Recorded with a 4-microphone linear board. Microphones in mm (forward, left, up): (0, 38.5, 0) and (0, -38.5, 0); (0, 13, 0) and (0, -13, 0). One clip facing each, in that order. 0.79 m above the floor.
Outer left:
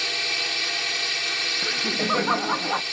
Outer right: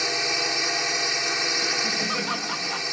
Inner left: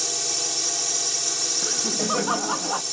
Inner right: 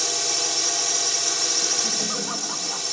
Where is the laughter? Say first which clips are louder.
Outer left 1 dB, inner right 1 dB; 35° left (ahead or behind).